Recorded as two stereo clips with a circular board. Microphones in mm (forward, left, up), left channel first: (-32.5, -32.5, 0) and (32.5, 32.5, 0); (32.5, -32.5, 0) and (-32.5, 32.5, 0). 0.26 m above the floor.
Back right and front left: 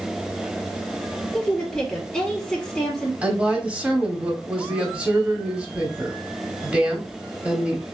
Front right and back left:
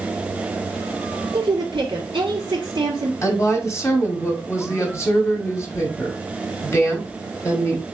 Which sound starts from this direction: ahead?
A woman speaking, at 3.2 s.